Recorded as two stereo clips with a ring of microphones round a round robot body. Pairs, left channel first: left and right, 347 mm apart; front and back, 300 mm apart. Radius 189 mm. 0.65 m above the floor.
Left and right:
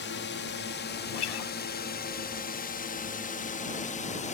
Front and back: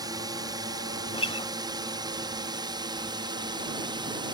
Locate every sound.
0.0 s a drone: 115° left; by 4.3 s 125° left
1.1 s a guitar: 75° left